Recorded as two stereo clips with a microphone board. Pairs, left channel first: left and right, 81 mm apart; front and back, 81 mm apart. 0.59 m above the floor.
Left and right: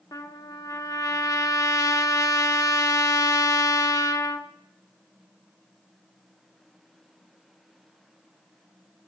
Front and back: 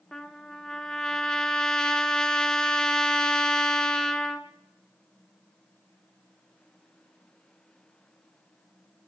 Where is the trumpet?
80° left, 1.5 m.